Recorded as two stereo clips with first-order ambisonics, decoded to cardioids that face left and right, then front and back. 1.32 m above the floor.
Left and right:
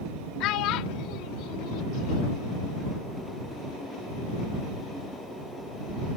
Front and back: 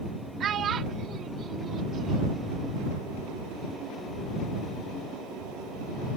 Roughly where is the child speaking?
Behind left.